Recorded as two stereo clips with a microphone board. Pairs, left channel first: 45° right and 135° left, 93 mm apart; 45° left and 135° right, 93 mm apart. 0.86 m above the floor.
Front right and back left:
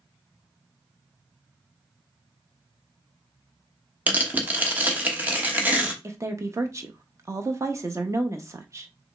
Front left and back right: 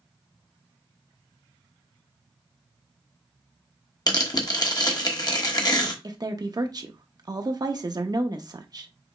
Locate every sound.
4.1 s tearing paper: 70° left, 1.1 m
6.0 s a woman speaking: 170° right, 0.8 m